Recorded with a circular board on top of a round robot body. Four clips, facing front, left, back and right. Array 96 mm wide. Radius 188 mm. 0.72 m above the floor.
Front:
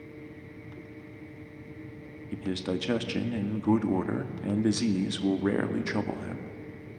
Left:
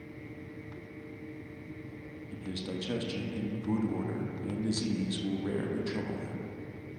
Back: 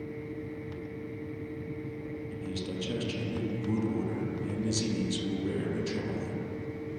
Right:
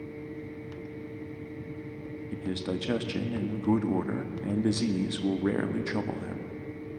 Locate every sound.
2.3 s a man speaking: 30° right, 2.0 m